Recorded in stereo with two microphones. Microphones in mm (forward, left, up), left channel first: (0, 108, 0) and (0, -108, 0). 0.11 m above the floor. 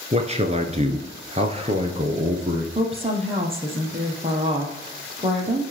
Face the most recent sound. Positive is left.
turn(degrees=-25)  # may be behind; listen again after turning